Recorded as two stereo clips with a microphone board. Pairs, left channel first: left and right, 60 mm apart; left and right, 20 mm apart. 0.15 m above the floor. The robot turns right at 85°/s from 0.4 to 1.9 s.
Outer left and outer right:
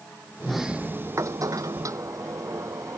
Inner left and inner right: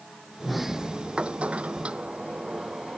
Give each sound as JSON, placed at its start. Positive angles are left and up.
{"t": 0.4, "sound": "a sliding door", "azimuth_deg": 170}